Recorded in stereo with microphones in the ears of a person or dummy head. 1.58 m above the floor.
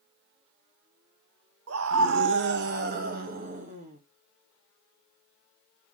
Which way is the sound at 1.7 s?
75° right (ahead or behind).